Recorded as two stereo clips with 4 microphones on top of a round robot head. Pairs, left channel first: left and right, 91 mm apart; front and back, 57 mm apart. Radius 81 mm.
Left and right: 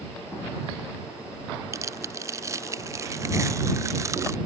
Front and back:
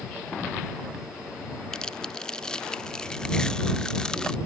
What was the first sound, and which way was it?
Tearing paper, 65° right.